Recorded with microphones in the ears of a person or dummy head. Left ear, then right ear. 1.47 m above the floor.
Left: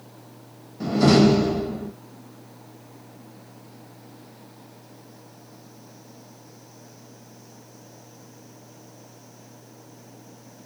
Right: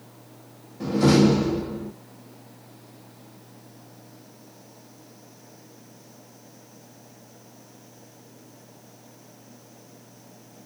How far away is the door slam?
About 1.4 m.